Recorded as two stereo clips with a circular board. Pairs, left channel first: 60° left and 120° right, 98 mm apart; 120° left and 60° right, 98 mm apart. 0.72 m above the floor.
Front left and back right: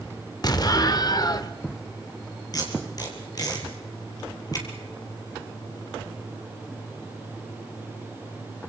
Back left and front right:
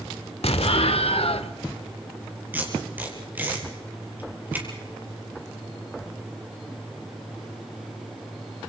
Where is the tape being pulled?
10° left, 4.5 m.